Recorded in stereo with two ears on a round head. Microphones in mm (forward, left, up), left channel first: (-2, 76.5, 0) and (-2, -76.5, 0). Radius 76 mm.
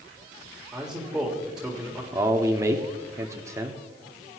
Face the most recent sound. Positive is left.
turn(degrees=-20)  # may be behind; listen again after turning